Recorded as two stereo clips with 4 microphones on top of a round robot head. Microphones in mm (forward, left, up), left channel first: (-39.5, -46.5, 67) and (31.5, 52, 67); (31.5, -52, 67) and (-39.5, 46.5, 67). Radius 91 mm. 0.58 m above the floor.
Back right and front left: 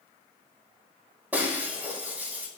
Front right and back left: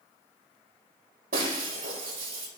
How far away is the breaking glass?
About 5 m.